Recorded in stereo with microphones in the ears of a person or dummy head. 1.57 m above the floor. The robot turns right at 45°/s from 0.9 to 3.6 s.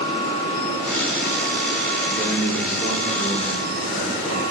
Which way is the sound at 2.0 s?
Straight ahead.